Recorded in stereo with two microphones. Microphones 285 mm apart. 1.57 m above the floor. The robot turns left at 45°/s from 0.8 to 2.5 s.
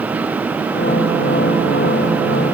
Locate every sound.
Only background noise.